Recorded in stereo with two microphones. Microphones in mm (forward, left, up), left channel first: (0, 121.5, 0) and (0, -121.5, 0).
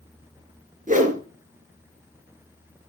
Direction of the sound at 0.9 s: 35° right (ahead or behind).